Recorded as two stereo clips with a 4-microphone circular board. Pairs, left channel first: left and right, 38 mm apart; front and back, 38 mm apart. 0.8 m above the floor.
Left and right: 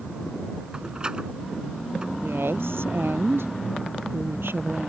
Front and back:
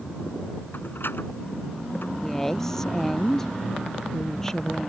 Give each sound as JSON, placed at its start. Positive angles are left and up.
{"t": 0.7, "sound": "a door slam", "azimuth_deg": -20}
{"t": 2.2, "sound": "a woman speaking", "azimuth_deg": -80}